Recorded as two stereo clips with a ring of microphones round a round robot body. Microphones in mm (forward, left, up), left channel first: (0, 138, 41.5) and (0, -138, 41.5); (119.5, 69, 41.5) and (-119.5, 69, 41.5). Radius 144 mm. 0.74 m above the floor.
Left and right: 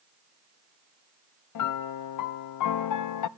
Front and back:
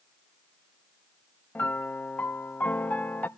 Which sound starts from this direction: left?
A piano, at 1.6 s.